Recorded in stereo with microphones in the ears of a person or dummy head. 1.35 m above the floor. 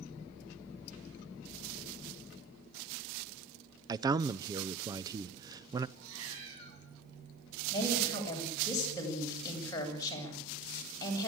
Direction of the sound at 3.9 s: 20° right (ahead or behind).